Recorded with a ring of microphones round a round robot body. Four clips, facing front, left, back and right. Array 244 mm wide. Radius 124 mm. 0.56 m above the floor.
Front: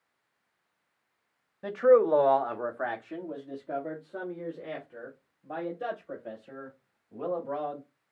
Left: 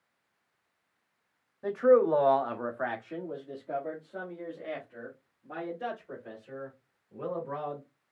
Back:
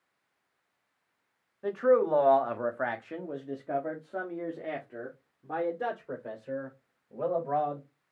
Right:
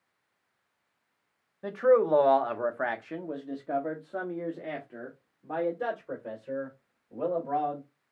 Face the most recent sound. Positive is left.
turn(degrees=-150)